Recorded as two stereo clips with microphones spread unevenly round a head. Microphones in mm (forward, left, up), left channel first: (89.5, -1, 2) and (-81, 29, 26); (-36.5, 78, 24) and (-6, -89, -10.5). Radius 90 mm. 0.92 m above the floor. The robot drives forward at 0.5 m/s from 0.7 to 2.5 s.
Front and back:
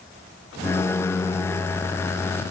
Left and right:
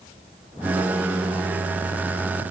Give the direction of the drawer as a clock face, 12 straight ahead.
I don't hear a drawer.